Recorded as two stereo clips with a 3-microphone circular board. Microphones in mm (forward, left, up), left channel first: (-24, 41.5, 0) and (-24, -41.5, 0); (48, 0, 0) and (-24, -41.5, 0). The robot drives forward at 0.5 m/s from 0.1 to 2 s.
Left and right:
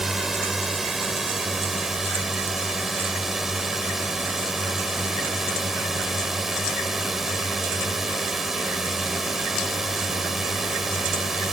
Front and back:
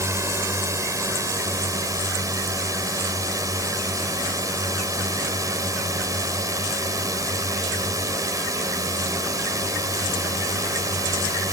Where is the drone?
175° right.